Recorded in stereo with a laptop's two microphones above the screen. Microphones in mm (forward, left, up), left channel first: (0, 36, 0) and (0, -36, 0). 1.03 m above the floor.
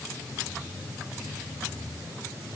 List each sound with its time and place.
Only background noise.